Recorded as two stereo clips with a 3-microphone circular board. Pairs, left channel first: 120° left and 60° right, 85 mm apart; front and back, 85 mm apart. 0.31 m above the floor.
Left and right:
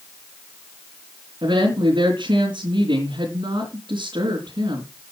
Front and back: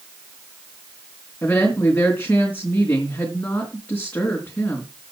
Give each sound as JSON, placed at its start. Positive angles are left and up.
{"t": 1.4, "sound": "a woman speaking", "azimuth_deg": -65, "distance_m": 3.5}